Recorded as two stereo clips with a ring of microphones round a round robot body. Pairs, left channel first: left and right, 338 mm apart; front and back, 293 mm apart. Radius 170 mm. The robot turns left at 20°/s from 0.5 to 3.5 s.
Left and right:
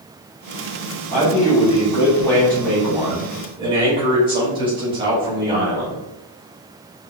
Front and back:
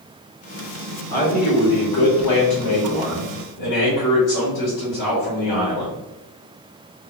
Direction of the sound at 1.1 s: 35° left.